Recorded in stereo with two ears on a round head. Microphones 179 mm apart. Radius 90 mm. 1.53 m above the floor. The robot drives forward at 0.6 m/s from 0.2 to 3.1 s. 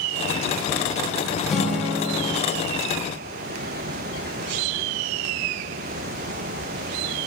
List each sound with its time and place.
1.5 s a guitar: centre (ahead or behind), 0.5 m